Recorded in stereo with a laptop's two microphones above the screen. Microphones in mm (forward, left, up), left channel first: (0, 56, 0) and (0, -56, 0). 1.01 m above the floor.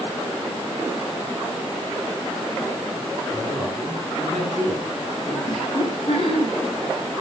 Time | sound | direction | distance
3.3 | a man speaking | 5° left (ahead or behind) | 8 m
5.4 | laughter | 55° left (ahead or behind) | 9 m